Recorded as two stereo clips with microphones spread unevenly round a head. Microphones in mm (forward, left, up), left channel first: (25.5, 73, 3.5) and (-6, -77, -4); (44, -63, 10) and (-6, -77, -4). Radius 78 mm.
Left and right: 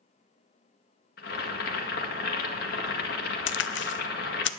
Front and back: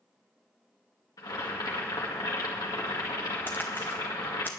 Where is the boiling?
55° left, 1.8 m.